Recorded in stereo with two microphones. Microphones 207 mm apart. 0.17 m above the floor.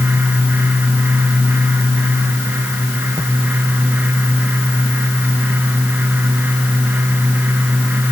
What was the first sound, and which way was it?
Only background noise.